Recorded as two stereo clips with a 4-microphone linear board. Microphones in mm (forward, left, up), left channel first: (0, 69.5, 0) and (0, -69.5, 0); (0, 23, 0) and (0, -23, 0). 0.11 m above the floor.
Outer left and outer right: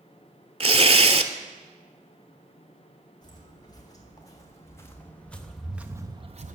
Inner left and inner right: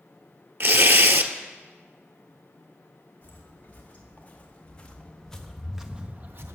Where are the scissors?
No scissors in this recording.